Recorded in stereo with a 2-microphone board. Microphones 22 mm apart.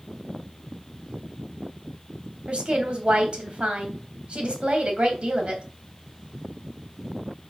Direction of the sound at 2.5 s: 65° right (ahead or behind).